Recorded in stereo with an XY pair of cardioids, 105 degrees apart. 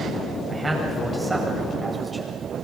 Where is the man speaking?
20° right, 9.5 m; by 2.3 s 10° right, 8 m.